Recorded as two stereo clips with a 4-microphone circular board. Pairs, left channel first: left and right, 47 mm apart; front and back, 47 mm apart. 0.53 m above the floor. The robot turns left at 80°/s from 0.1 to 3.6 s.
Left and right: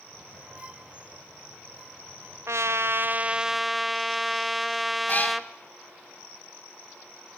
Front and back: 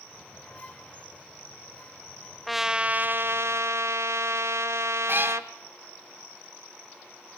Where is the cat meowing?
140° left, 1.7 m.